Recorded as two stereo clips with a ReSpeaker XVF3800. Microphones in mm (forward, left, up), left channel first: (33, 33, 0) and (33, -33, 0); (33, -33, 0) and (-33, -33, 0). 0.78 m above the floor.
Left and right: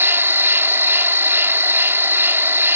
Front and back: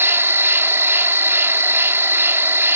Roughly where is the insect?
Behind right.